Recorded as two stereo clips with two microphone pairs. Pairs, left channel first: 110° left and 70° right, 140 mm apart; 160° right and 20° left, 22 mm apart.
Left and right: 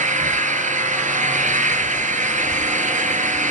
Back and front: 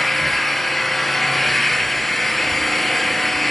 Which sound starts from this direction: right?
An engine running, at 0.0 s.